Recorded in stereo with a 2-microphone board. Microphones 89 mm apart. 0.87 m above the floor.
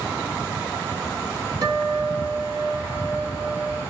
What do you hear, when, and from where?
1.6 s a guitar: 50° right (ahead or behind), 1.0 m